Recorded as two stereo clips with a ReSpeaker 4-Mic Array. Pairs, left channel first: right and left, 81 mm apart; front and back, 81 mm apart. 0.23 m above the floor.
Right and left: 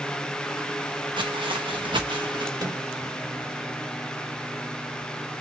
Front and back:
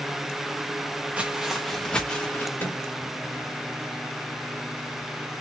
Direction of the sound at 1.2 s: 105° left.